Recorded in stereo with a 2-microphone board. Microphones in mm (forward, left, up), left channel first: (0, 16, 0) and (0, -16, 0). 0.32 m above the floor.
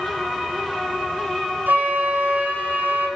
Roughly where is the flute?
Right.